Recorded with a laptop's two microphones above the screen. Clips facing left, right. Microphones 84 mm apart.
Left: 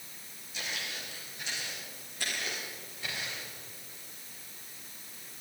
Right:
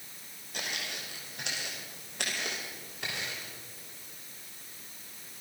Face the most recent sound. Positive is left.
turn(degrees=-75)  # may be behind; listen again after turning